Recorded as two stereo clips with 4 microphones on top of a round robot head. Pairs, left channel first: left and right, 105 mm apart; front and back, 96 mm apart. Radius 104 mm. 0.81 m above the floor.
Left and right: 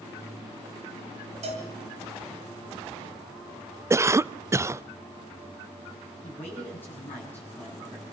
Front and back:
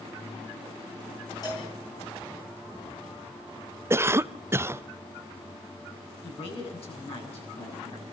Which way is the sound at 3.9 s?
135° right.